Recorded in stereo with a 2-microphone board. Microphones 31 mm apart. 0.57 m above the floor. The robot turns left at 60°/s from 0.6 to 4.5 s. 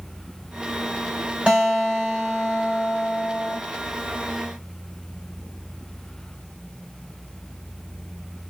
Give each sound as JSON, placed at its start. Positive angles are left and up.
{"t": 1.5, "sound": "a guitar", "azimuth_deg": -145, "distance_m": 3.0}